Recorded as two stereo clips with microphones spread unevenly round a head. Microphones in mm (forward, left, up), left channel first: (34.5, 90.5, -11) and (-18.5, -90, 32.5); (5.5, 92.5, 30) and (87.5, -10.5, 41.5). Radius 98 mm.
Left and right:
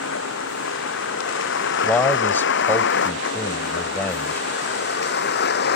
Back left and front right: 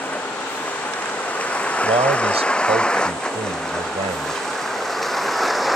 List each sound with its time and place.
0.0 s a vehicle: 50° left; by 5.8 s 35° left
1.8 s a man speaking: 10° right